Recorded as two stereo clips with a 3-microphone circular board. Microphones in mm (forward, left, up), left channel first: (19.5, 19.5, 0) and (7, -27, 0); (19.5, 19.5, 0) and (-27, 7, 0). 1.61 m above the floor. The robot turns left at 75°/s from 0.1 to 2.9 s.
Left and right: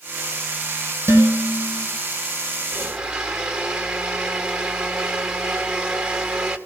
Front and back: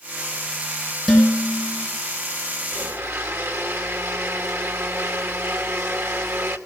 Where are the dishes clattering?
80° right, 5 m; by 1.9 s 140° right, 5 m.